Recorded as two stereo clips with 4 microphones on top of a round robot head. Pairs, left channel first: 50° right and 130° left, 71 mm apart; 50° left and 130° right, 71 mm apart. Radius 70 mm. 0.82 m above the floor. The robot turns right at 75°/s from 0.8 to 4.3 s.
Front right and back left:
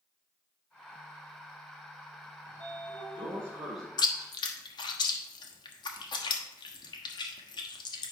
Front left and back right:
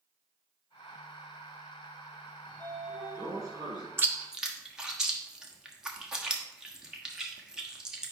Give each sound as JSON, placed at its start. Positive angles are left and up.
{"t": 2.4, "sound": "a sliding door", "azimuth_deg": 110, "distance_m": 2.0}
{"t": 4.0, "sound": "chewing", "azimuth_deg": -75, "distance_m": 1.2}